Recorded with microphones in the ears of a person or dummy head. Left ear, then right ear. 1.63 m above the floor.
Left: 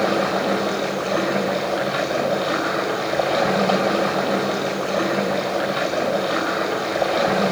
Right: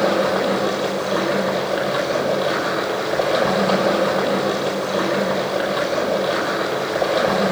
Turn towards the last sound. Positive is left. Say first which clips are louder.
# right 2 dB
turn(degrees=-10)  # may be behind; listen again after turning